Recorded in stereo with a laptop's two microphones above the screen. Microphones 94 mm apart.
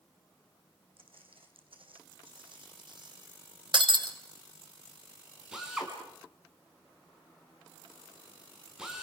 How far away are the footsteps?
About 3.5 m.